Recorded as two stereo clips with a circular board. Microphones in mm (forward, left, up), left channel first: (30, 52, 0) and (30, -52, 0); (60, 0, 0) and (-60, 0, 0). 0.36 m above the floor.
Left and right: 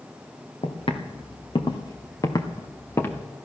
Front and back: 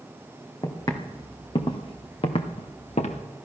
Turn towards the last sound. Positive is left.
turn(degrees=20)